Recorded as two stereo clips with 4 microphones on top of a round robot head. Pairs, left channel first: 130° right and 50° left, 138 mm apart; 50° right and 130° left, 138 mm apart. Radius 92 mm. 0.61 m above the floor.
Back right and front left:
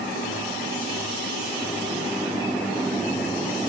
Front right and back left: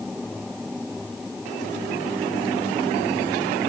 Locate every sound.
Only background noise.